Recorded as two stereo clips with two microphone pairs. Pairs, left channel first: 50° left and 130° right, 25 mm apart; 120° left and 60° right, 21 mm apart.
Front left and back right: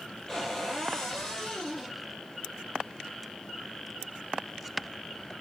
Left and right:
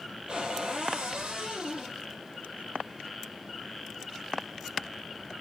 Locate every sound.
0.3 s a cupboard door: 20° right, 2.5 m